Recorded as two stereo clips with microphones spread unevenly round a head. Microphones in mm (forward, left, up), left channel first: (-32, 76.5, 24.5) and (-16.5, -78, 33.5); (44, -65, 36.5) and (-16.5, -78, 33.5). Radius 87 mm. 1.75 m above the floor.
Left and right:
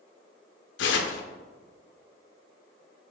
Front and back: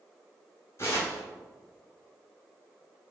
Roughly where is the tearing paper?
Left.